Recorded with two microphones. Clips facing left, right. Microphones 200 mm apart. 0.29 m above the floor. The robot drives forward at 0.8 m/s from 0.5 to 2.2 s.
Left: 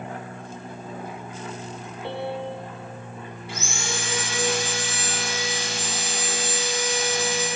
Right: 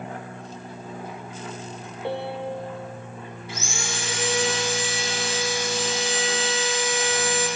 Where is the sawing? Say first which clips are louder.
Left 1 dB; 60° left (ahead or behind), 3 m.